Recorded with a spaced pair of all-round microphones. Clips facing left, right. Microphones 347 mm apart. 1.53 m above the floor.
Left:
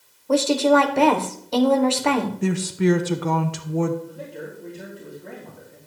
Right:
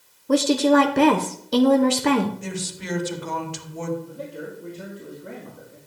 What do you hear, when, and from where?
0.3 s a woman speaking: 25° right (ahead or behind), 0.8 m
2.4 s a woman speaking: 65° left (ahead or behind), 1.0 m
4.1 s a man speaking: 10° right (ahead or behind), 3 m